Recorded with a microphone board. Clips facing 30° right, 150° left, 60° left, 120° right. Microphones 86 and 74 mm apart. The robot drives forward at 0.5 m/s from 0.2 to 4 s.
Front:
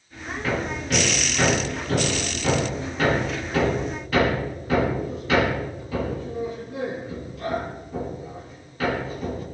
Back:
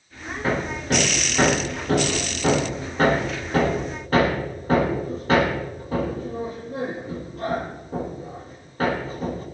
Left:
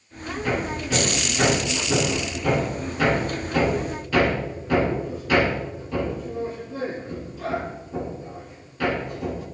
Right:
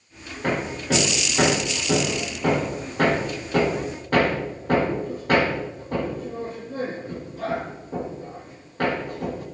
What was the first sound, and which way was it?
Hammering, 155° right.